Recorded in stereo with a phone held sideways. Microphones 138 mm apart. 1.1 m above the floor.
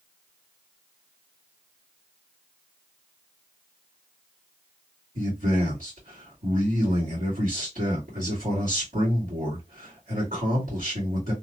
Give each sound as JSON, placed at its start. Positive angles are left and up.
{"t": 5.2, "sound": "a man speaking", "side_deg": -80, "distance_m": 1.7}